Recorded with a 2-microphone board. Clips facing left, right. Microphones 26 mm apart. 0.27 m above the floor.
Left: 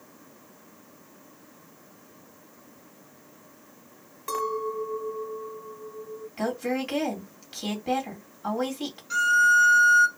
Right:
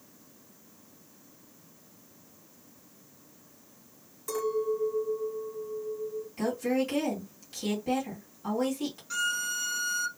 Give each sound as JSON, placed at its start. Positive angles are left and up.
{"t": 4.3, "sound": "a clink", "side_deg": 45, "distance_m": 1.3}
{"t": 6.4, "sound": "a woman speaking", "side_deg": 35, "distance_m": 1.8}
{"t": 9.1, "sound": "a violin", "side_deg": 10, "distance_m": 0.7}